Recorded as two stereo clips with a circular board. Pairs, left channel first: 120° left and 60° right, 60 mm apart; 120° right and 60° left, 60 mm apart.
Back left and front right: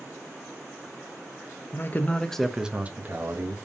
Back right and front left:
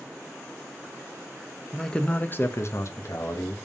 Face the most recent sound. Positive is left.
turn(degrees=-100)